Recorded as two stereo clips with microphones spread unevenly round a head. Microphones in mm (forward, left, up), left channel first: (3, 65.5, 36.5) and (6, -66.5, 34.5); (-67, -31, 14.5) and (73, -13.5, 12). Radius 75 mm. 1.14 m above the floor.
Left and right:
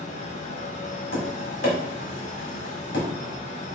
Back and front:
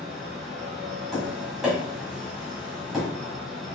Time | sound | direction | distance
0.0 | a fan | 95° left | 0.8 m
1.1 | tapping | 95° left | 1.6 m